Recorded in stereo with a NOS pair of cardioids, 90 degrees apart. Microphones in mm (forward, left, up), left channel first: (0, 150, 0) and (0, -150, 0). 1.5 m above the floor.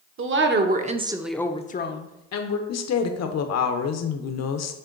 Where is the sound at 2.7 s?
60° left, 1.0 m.